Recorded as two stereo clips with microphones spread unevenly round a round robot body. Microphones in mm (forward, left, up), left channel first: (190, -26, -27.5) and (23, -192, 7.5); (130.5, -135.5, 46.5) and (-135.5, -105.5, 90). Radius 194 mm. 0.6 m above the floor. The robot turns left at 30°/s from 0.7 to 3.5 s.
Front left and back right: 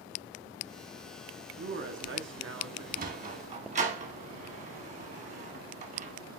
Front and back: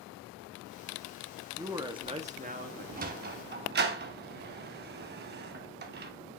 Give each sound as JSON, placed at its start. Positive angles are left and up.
{"t": 1.6, "sound": "a man speaking", "azimuth_deg": -100, "distance_m": 1.2}
{"t": 3.0, "sound": "a sliding door", "azimuth_deg": -155, "distance_m": 0.6}